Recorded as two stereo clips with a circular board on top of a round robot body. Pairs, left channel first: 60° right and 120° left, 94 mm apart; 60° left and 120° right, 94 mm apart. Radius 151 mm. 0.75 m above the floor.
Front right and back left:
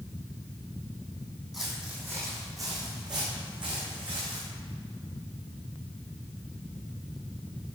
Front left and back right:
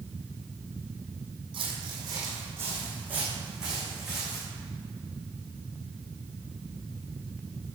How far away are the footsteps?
About 2 m.